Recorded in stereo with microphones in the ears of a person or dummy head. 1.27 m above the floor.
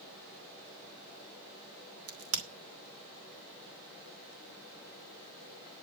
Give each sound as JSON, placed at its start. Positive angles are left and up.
{"t": 2.1, "sound": "a crack", "side_deg": -75, "distance_m": 2.5}